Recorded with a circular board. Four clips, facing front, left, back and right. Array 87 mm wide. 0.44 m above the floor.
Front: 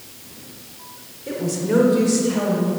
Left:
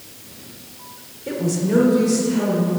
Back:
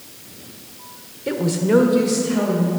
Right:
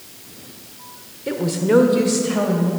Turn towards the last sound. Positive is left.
turn(degrees=-90)